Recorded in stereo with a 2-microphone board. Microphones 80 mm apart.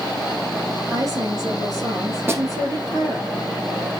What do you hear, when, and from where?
0.9 s a woman speaking: 45° right (ahead or behind), 2.5 m
2.3 s a snare drum: 30° right (ahead or behind), 1.9 m